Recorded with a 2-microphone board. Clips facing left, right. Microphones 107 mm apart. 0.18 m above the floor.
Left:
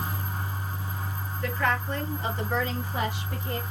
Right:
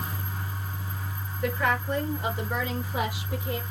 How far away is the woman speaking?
About 3.5 m.